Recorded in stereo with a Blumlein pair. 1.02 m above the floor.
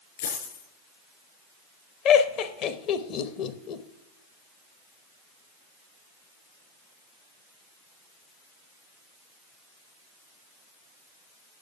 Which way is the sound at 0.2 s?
55° left.